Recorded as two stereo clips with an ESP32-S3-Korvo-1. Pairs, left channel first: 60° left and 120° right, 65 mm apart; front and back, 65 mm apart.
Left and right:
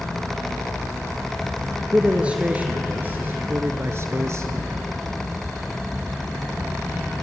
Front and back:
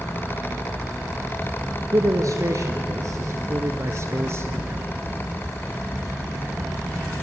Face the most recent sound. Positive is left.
turn(degrees=-140)